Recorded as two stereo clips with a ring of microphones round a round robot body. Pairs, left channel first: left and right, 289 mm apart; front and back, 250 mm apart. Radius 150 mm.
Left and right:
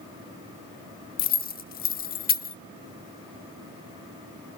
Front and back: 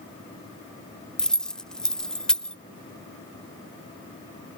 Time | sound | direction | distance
1.2 | keys jangling | 85° left | 0.6 m